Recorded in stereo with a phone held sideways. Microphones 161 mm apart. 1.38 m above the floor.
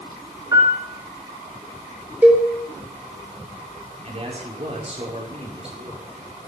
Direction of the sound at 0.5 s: 20° right (ahead or behind).